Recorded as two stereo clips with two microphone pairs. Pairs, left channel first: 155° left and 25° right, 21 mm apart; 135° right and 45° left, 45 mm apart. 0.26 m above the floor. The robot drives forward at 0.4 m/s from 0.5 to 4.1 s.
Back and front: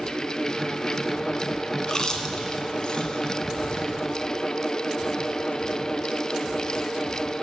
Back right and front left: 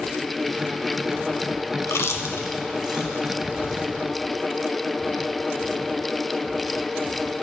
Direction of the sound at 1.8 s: 140° right.